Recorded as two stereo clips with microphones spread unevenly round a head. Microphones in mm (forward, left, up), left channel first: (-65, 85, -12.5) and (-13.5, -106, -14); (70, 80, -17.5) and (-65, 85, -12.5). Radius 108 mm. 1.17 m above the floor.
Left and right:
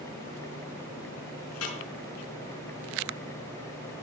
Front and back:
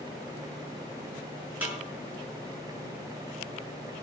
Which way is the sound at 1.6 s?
100° left.